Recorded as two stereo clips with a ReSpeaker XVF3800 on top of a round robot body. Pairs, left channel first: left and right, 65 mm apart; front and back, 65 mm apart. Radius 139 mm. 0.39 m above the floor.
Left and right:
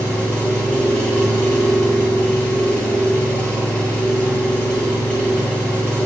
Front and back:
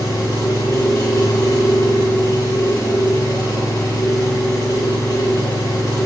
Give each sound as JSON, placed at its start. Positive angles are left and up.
{"t": 0.0, "sound": "an engine running", "azimuth_deg": 20, "distance_m": 7.0}